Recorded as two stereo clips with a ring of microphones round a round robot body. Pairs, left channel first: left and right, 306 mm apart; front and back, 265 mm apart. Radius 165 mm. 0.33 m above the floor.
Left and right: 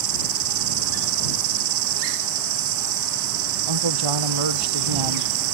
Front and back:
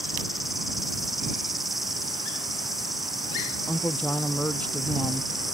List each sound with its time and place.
0.0 s an insect: 90° right
3.7 s a woman speaking: 85° right